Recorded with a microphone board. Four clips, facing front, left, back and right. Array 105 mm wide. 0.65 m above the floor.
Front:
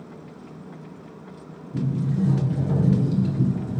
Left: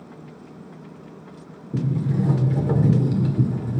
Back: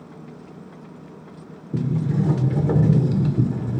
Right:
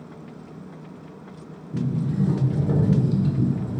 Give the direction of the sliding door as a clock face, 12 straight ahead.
7 o'clock.